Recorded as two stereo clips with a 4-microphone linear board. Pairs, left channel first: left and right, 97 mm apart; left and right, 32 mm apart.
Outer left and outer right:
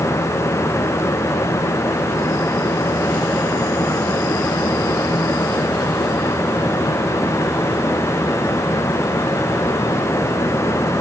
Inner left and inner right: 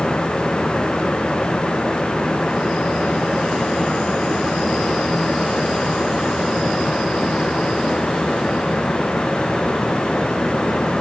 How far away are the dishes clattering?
I don't hear dishes clattering.